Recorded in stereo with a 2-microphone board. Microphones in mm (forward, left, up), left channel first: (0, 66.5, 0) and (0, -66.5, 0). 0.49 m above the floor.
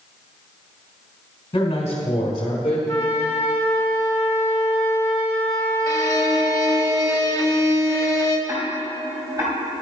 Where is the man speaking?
40° left (ahead or behind), 1.7 m.